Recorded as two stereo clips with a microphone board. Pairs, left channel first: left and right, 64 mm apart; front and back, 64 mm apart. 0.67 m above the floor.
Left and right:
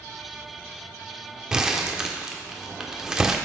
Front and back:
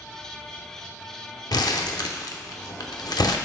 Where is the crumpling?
10° right, 0.6 m.